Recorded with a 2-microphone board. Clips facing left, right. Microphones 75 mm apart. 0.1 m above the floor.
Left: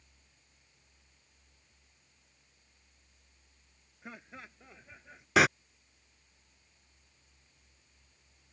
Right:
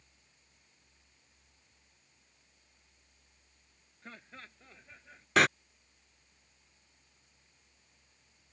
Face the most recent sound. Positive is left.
turn(degrees=5)  # may be behind; listen again after turning